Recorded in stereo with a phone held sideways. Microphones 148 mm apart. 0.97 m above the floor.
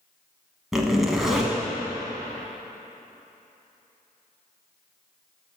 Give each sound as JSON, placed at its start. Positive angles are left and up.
{"t": 0.7, "sound": "a zipper", "side_deg": -5, "distance_m": 1.1}